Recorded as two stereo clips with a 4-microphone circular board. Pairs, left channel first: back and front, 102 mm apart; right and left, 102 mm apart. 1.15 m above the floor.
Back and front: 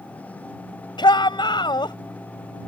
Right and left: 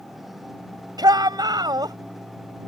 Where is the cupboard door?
No cupboard door in this recording.